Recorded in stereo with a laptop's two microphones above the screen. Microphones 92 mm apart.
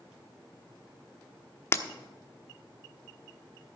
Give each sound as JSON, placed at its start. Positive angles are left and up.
{"t": 1.7, "sound": "breaking glass", "side_deg": 30, "distance_m": 1.1}